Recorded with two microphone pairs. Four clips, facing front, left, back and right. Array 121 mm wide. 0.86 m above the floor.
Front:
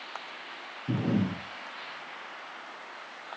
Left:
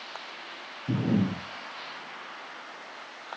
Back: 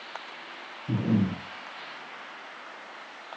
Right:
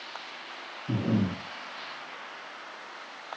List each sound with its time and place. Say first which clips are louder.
0.9 s breathing: left 1 dB, back 2 dB; 10° left, 5 m